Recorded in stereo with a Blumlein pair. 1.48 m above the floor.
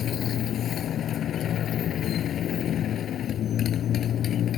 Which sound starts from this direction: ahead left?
A motorcycle, at 0.0 s.